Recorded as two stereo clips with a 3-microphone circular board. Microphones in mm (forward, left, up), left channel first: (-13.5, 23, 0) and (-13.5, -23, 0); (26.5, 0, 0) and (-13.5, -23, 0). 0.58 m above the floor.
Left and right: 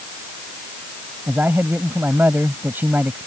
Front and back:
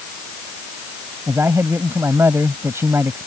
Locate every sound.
1.3 s a man speaking: 130° right